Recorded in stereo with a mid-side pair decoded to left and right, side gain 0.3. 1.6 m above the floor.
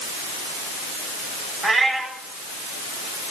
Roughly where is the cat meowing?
Ahead right.